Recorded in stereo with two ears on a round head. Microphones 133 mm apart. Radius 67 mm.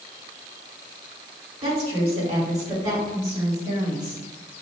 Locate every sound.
1.6 s a woman speaking: 40° right (ahead or behind), 1.9 m; by 4.2 s 35° right (ahead or behind), 2.5 m